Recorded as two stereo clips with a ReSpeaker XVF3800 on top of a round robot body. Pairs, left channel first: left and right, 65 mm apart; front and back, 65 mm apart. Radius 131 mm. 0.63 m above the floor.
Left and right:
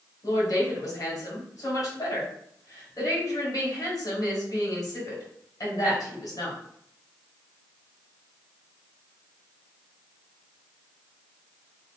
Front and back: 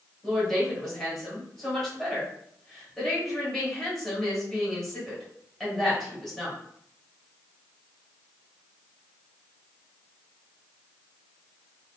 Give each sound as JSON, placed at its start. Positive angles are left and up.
{"t": 0.2, "sound": "a woman speaking", "azimuth_deg": 80, "distance_m": 2.0}